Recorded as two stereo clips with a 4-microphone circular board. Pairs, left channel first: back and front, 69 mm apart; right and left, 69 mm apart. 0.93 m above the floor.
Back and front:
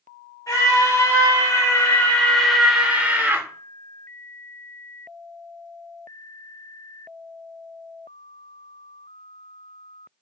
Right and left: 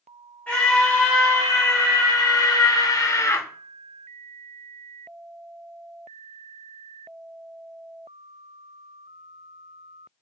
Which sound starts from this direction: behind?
A scream, at 0.5 s.